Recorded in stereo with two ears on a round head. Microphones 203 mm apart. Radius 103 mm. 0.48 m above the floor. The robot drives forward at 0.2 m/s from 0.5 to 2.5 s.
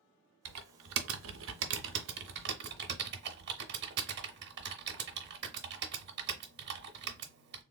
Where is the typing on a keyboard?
80° right, 0.6 m; by 7.6 s 50° right (ahead or behind), 0.8 m.